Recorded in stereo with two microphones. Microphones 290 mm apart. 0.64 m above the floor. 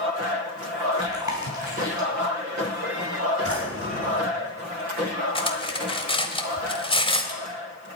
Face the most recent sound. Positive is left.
turn(degrees=20)  # may be behind; listen again after turning